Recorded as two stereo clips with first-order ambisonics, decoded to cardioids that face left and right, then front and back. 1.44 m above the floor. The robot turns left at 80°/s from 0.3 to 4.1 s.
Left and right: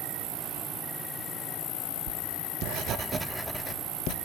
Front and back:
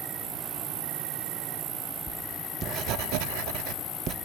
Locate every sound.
0.0 s an insect: 120° right, 0.7 m; by 4.2 s 65° right, 0.7 m
2.1 s writing: 75° right, 0.5 m; by 4.1 s 125° left, 0.5 m